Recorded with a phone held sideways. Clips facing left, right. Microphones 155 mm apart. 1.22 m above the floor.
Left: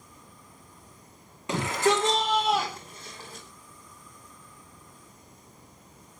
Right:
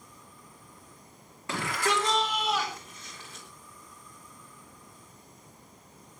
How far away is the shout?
About 3 m.